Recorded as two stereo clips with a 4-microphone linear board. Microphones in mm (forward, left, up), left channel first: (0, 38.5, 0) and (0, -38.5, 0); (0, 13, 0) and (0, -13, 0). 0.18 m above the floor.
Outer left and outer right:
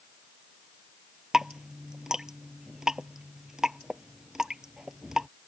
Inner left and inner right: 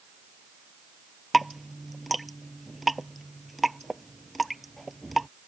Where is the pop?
I don't hear a pop.